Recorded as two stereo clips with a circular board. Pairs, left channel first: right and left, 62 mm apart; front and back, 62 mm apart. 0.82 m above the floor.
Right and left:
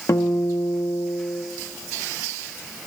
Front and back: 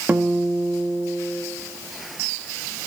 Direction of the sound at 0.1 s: 125° right.